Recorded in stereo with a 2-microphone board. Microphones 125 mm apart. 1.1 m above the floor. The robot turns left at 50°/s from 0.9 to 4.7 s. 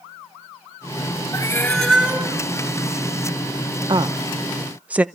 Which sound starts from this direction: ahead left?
A cat meowing, at 1.3 s.